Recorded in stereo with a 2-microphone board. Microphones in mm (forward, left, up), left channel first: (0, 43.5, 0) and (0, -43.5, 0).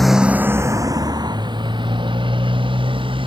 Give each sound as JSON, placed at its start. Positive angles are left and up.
{"t": 0.0, "sound": "a motorcycle", "side_deg": 0}